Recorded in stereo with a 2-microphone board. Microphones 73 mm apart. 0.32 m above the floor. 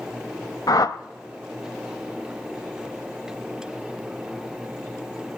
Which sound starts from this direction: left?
A whoosh, at 0.7 s.